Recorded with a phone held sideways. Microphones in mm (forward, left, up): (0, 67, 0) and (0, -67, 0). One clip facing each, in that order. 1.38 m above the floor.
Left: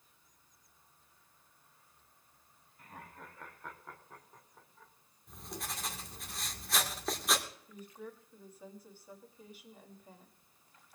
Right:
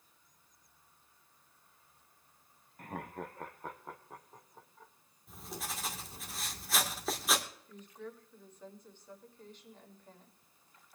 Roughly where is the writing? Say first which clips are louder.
Right 1 dB; centre.